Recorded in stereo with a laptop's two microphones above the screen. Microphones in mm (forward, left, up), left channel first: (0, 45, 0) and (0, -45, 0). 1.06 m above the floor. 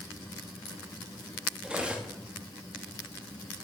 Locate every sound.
1.6 s cutlery clinking: 10° right (ahead or behind), 0.7 m